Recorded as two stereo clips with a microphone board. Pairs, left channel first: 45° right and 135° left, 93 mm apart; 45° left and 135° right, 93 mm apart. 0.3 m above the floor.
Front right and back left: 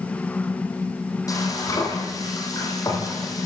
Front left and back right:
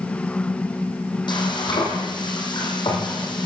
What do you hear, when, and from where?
1.3 s frying: 5° left, 8.5 m